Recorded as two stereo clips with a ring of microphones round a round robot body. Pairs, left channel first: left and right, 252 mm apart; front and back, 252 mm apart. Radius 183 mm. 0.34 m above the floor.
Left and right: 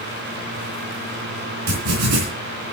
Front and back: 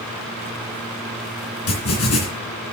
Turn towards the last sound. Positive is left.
turn(degrees=-50)